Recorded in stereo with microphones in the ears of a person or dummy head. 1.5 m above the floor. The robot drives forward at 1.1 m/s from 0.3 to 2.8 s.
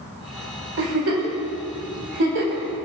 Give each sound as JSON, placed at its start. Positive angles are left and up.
{"t": 0.8, "sound": "a giggle", "side_deg": -70, "distance_m": 3.5}